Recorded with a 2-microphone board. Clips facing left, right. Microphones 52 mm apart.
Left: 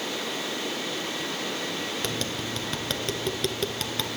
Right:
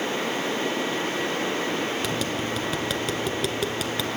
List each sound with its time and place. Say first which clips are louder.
2.0 s tapping: right 4 dB; 5° right (ahead or behind), 1.7 m